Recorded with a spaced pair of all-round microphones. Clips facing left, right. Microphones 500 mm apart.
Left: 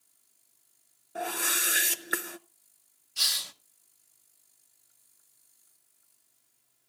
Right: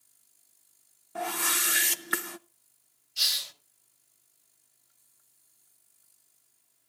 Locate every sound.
1.1 s a whoosh: 20° right (ahead or behind), 0.5 m
3.2 s a hiss: 70° left (ahead or behind), 1.1 m